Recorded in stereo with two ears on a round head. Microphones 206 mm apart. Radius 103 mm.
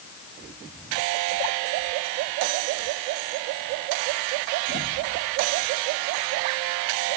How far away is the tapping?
I don't hear tapping.